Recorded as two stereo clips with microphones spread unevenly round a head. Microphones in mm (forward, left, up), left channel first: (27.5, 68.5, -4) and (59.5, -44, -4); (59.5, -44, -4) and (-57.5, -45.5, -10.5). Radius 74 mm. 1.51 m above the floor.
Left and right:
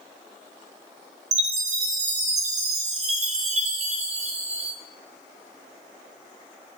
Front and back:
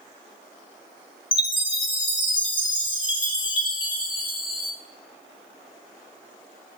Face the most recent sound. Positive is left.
turn(degrees=-50)